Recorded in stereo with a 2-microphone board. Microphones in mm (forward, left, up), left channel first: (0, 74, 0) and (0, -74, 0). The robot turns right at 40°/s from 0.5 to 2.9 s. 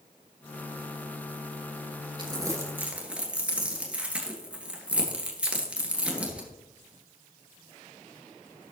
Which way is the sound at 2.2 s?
30° right (ahead or behind).